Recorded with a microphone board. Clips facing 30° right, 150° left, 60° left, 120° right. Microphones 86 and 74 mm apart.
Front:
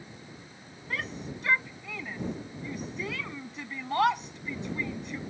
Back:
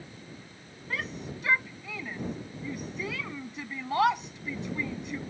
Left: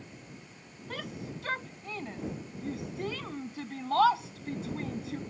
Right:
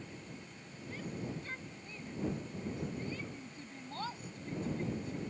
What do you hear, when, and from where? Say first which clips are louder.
0.9 s a shout: even, left 2 dB; 60° left